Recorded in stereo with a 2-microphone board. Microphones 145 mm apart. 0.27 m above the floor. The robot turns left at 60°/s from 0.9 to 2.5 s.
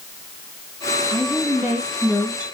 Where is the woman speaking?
140° right, 1.9 m; by 2.5 s 140° left, 1.9 m.